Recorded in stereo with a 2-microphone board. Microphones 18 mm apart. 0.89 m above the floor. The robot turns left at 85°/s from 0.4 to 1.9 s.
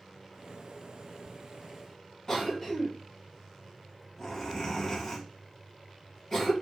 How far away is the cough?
About 1.2 m.